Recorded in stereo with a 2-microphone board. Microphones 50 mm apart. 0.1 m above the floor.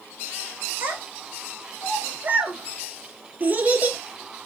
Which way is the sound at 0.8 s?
40° right (ahead or behind).